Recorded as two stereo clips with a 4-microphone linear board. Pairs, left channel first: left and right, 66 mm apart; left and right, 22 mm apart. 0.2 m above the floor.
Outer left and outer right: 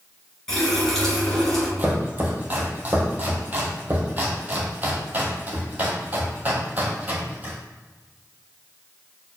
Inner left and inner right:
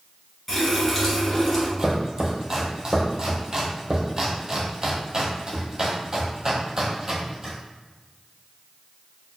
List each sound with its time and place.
0.5 s a running tap: 10° left (ahead or behind), 1.6 m
1.8 s chopping: 25° right (ahead or behind), 1.2 m